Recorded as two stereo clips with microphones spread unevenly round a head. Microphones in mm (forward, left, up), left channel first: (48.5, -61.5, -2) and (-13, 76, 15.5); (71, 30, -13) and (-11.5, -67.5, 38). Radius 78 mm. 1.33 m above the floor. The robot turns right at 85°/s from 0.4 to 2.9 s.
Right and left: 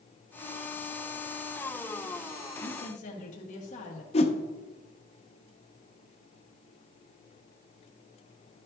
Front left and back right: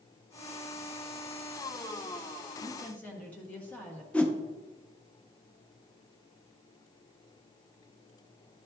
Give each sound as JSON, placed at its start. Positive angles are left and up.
{"t": 2.6, "sound": "a woman speaking", "azimuth_deg": -50, "distance_m": 1.4}
{"t": 4.1, "sound": "a whoosh", "azimuth_deg": -60, "distance_m": 0.7}